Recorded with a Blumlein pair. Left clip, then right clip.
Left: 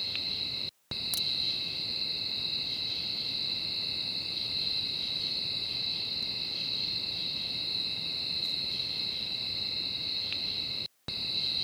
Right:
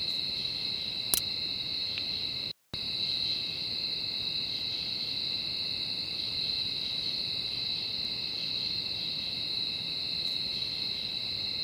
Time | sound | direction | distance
1.1 | a crack | 65° right | ?